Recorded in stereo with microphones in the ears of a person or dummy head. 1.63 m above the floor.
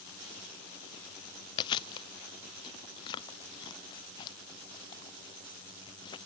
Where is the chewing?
30° left (ahead or behind).